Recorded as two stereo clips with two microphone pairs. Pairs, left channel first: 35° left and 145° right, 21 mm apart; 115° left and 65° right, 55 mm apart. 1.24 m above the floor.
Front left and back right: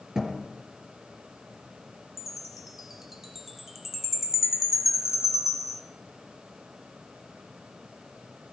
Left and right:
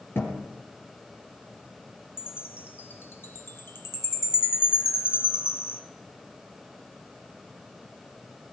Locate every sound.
0.1 s a thud: 155° left, 4 m
2.2 s a chime: 145° left, 1.3 m